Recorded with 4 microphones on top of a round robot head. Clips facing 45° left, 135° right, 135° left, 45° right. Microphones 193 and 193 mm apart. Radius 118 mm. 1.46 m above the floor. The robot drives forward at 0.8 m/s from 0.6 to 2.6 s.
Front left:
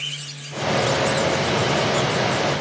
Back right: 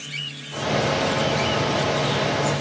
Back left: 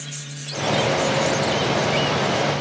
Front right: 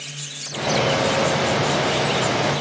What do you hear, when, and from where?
Only background noise.